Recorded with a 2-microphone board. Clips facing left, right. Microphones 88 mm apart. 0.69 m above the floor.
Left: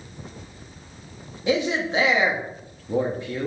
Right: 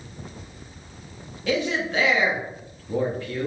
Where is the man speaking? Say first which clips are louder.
Left 2 dB; 25° left (ahead or behind), 0.7 m.